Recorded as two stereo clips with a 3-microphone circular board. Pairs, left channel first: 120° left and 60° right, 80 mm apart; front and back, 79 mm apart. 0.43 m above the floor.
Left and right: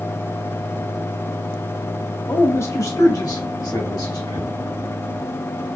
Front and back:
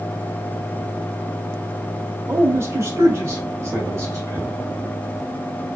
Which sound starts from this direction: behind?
A man speaking, at 2.3 s.